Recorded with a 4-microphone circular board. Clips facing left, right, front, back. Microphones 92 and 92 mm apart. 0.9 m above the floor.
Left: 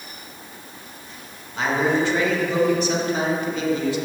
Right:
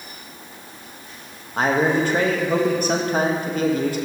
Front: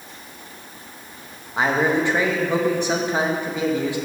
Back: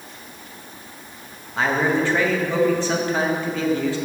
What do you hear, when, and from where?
1.6 s a man speaking: 70° right, 1.0 m